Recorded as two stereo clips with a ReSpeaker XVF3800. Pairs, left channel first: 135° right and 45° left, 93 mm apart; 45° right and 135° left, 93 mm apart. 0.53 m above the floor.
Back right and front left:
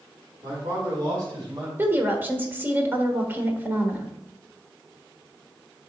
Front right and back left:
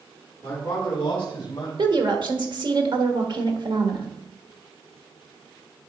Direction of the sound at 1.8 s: 110° left.